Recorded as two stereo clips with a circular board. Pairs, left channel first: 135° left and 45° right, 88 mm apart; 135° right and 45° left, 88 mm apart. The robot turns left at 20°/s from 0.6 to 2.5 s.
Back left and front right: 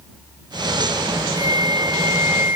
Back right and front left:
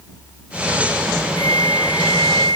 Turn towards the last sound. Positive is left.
turn(degrees=-110)